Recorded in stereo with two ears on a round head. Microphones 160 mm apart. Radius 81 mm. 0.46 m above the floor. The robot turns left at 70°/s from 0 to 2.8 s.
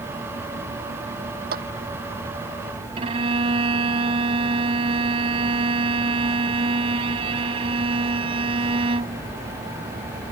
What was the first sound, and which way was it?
A clap, 60° right (ahead or behind).